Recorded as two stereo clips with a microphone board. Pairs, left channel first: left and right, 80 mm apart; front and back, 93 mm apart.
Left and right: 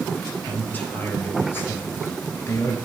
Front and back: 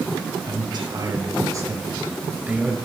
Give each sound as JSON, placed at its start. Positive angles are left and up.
{"t": 0.5, "sound": "a man speaking", "azimuth_deg": 155, "distance_m": 2.5}